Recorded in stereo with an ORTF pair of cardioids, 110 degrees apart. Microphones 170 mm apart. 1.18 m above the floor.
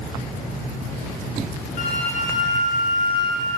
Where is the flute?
60° left, 2 m.